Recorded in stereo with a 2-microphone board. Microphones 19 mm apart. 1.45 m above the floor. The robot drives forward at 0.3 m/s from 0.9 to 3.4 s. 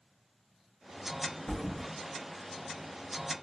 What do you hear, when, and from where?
1.5 s a thud: 10° left (ahead or behind), 2.5 m